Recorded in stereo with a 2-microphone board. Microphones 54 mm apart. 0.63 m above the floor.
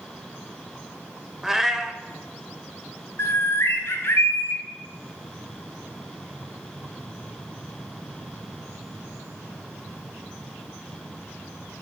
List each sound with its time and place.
1.4 s a cat meowing: 5° right (ahead or behind), 0.6 m
3.2 s a bird: 60° left (ahead or behind), 1.0 m